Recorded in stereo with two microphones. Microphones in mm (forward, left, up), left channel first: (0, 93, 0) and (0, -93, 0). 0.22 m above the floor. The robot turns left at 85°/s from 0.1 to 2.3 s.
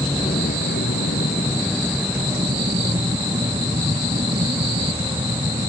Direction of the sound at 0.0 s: 155° left.